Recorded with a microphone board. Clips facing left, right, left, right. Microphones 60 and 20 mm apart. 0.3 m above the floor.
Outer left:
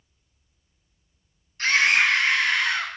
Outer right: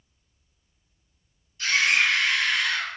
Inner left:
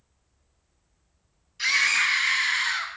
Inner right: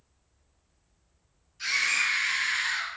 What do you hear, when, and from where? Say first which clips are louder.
1.6 s a scream: outer left 2 dB, inner left 4 dB; 60° left (ahead or behind), 2 m; by 2.9 s 40° left (ahead or behind), 2.5 m